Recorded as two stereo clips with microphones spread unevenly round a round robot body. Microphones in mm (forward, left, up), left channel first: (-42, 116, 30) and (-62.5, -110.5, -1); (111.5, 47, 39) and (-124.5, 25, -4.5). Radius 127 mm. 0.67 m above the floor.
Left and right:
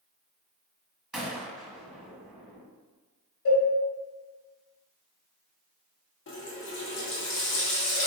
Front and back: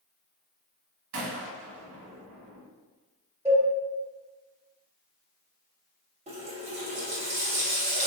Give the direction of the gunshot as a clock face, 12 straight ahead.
6 o'clock.